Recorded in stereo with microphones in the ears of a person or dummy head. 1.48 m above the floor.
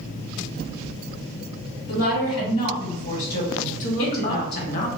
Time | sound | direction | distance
1.9 | a woman speaking | 30° left (ahead or behind) | 1.7 m
3.8 | a woman speaking | 45° left (ahead or behind) | 0.7 m